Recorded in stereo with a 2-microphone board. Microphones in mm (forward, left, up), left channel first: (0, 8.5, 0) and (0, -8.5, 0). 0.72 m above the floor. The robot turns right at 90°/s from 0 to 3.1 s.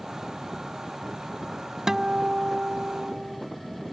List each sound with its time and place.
1.9 s a guitar: 155° right; by 3.4 s 45° right